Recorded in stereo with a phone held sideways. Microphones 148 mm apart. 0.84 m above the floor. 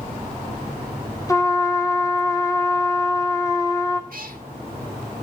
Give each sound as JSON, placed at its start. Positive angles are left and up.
{"t": 1.3, "sound": "a trumpet", "side_deg": 20, "distance_m": 1.1}
{"t": 4.1, "sound": "a cat meowing", "side_deg": -70, "distance_m": 0.8}